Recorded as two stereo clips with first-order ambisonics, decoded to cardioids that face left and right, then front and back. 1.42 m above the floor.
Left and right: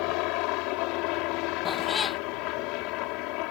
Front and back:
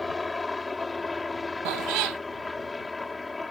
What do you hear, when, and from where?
0.0 s a helicopter: 80° left
1.6 s a cat meowing: 165° left